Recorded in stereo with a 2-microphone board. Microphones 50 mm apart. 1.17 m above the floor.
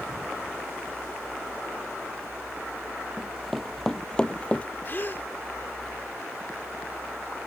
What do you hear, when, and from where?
3.2 s running footsteps: 5° right (ahead or behind); by 4.7 s 25° left (ahead or behind)
4.8 s a gasp: 45° left (ahead or behind)